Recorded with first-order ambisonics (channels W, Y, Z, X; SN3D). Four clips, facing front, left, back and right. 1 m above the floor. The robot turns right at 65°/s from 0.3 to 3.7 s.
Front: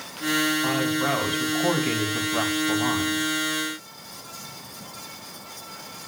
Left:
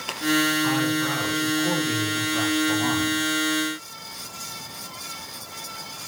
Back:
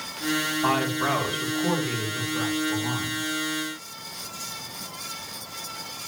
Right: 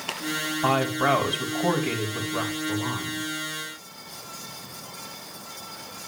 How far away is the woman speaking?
About 2.5 m.